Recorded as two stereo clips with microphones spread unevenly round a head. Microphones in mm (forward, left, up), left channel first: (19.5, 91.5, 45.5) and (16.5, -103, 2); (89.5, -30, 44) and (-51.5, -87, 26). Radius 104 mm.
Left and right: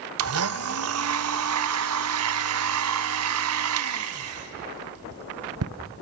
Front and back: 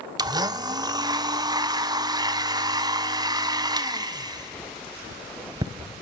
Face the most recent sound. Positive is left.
turn(degrees=-95)